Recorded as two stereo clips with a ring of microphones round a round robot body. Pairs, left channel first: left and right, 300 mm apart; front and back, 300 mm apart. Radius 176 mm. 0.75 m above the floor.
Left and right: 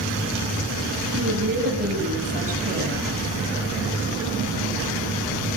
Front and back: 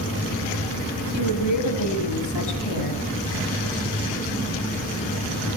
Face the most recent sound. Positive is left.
turn(degrees=-20)